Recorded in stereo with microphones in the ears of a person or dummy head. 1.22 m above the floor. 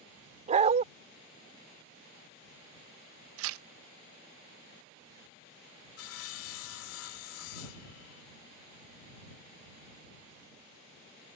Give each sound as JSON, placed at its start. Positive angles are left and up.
{"t": 0.5, "sound": "a dog barking", "side_deg": -35}
{"t": 3.4, "sound": "tearing paper", "side_deg": -80}
{"t": 6.0, "sound": "sawing", "side_deg": 75}